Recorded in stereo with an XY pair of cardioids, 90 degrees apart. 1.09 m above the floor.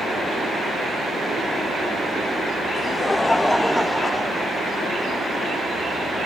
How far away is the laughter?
About 0.6 m.